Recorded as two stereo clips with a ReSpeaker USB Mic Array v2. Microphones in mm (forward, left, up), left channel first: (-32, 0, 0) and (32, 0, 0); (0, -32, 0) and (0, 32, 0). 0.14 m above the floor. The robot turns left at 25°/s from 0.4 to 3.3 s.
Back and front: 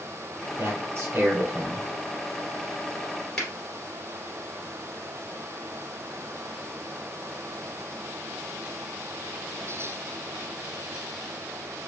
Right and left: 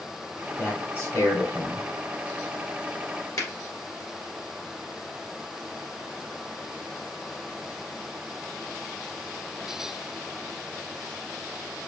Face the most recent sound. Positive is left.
turn(degrees=-105)